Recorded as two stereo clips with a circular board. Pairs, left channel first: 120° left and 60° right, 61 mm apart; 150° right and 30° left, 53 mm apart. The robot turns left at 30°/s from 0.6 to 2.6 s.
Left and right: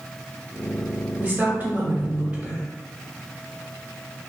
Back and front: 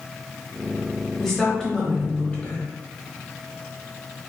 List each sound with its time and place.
1.2 s a woman speaking: 70° right, 1.1 m; by 2.6 s 115° right, 1.1 m